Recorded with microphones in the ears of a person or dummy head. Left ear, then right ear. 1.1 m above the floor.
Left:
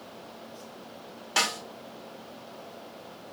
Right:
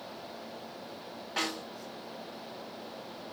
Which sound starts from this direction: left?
A snare drum, at 1.4 s.